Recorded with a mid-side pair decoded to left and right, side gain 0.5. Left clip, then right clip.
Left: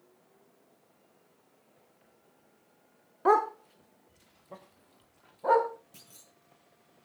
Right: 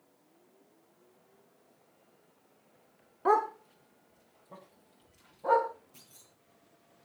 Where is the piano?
No piano in this recording.